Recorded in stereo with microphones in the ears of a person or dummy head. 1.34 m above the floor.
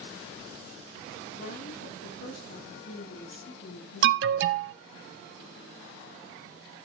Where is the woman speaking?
50° left (ahead or behind), 6 m.